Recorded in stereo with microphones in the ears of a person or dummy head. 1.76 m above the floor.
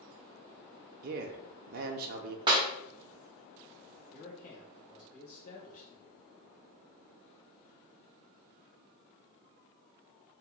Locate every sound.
1.0 s a man speaking: 55° right (ahead or behind), 0.5 m
2.5 s a clap: 20° right (ahead or behind), 0.5 m
4.1 s a man speaking: 45° left (ahead or behind), 1.0 m